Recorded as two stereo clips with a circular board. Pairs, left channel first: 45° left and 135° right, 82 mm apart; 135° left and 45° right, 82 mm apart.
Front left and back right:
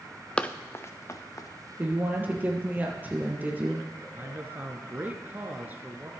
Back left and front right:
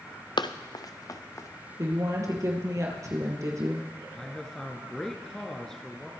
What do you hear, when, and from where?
0.4 s running footsteps: 120° left, 0.7 m; by 1.5 s 85° left, 1.4 m
1.8 s a woman speaking: 75° right, 2.5 m
4.2 s a man speaking: 150° right, 1.1 m